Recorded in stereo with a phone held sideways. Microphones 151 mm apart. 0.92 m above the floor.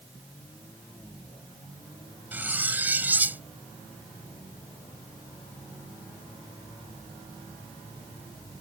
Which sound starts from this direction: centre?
Cutlery clinking, at 2.3 s.